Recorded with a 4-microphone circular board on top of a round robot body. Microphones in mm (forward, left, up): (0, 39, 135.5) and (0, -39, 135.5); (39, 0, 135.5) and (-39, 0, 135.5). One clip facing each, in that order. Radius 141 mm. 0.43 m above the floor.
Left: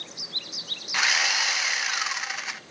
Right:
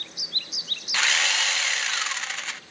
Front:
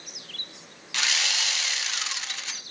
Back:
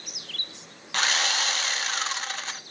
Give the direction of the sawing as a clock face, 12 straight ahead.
7 o'clock.